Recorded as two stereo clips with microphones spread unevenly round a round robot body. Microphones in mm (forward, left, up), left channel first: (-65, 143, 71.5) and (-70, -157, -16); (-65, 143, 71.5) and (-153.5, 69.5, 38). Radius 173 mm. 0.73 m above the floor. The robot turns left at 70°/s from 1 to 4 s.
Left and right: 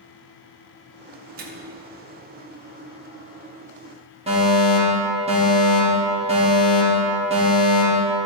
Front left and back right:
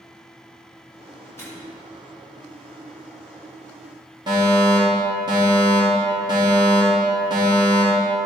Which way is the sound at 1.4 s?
40° right.